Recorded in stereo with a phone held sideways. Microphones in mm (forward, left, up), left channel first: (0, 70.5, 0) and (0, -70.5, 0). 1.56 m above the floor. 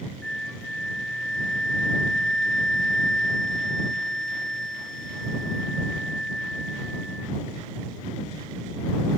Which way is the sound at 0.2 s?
5° left (ahead or behind).